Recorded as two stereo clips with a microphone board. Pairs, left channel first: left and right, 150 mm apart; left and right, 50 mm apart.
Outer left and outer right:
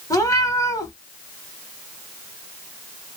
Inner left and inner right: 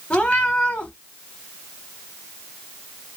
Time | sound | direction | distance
0.1 | a cat meowing | 25° left (ahead or behind) | 0.8 m